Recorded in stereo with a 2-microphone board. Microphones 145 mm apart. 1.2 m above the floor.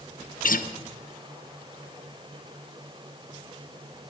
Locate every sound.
0.4 s a guitar: 70° left (ahead or behind), 0.7 m